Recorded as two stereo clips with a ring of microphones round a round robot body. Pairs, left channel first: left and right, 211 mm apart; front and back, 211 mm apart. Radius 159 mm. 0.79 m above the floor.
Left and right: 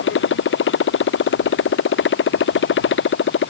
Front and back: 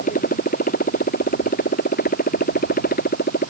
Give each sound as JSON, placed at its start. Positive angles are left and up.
{"t": 0.0, "sound": "a motorcycle", "azimuth_deg": 65}